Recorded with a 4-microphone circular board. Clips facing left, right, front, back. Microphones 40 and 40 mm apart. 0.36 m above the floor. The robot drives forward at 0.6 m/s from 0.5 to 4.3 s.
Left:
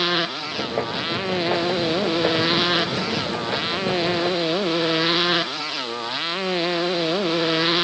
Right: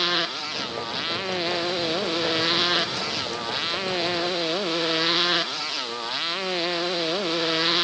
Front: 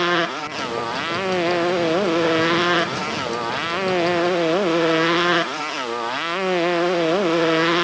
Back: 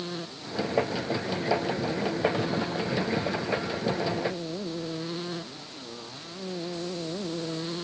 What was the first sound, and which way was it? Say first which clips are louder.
A motorcycle: left 2 dB, front 16 dB; 5° left.